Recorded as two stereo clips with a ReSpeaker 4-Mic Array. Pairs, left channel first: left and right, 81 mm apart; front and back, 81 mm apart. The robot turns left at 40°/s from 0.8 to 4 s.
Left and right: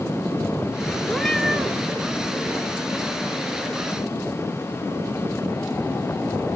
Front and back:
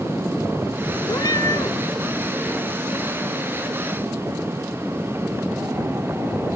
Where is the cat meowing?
20° left, 0.8 m; by 1.7 s 10° right, 0.8 m.